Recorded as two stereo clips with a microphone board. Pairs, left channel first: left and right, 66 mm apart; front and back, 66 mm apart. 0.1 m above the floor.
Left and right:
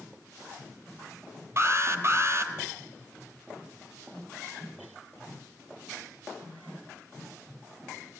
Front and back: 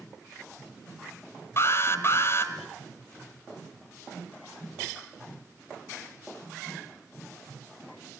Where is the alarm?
45° right, 1.9 m.